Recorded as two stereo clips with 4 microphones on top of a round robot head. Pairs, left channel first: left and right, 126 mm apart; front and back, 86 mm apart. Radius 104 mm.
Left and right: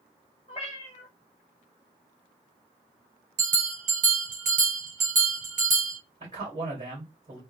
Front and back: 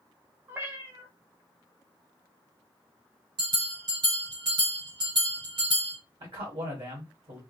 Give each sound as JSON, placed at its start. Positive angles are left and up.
{"t": 0.5, "sound": "a cat meowing", "azimuth_deg": 130, "distance_m": 1.1}
{"t": 3.4, "sound": "a bell", "azimuth_deg": -125, "distance_m": 2.5}
{"t": 6.2, "sound": "a man speaking", "azimuth_deg": -145, "distance_m": 2.0}